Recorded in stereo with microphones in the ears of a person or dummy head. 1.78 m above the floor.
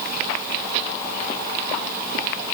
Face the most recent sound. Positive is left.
No sound to turn to.